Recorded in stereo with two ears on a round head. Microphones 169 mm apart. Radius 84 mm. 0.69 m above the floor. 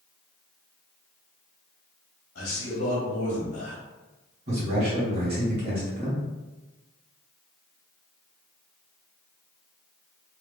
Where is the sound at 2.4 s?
55° left (ahead or behind), 1.2 m.